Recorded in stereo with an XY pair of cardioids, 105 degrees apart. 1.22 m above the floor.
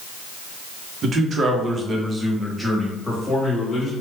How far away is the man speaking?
About 0.9 m.